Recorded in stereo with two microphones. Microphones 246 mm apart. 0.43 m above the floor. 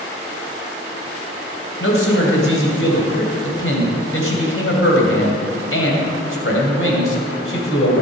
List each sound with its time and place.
1.8 s a man speaking: 60° left (ahead or behind), 2.5 m